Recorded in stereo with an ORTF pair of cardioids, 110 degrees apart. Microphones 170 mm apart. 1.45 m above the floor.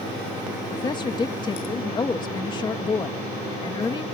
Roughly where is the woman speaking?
Ahead left.